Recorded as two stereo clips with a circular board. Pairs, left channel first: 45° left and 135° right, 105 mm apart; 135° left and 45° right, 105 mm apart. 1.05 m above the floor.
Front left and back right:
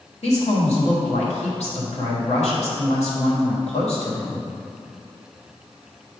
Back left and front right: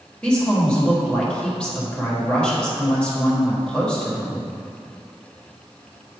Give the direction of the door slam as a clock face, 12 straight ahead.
No door slam in this recording.